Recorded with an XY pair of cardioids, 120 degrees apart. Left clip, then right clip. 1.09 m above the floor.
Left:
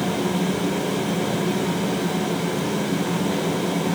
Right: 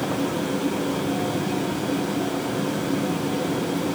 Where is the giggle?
No giggle in this recording.